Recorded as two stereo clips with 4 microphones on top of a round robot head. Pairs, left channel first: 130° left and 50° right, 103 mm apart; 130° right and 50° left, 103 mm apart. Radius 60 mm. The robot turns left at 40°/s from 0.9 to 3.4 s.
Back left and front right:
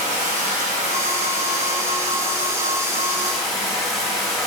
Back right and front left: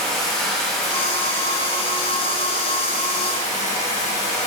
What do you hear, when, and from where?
0.0 s running water: 45° right, 2.5 m; by 4.5 s 145° right, 2.5 m